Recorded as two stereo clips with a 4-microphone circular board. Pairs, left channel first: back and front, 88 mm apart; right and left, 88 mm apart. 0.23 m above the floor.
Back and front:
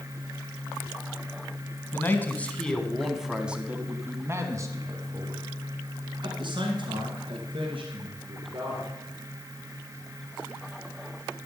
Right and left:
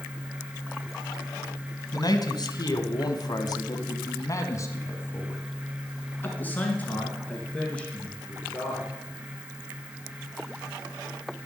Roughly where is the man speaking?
Behind right.